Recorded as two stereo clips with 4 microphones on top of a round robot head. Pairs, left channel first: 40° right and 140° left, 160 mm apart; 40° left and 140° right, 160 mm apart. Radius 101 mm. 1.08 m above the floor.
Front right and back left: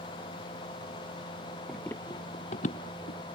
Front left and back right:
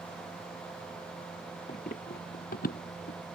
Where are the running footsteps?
55° left; by 3.2 s straight ahead.